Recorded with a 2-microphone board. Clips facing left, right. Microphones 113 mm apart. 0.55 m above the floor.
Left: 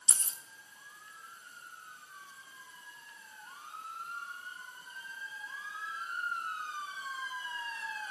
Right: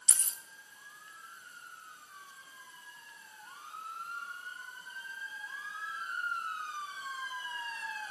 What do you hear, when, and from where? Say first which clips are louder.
0.1 s keys jangling: left 1 dB; 30° left (ahead or behind), 0.6 m